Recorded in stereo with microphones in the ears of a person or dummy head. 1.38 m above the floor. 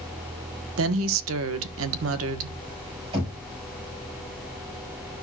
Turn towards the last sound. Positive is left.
turn(degrees=-30)  # may be behind; listen again after turning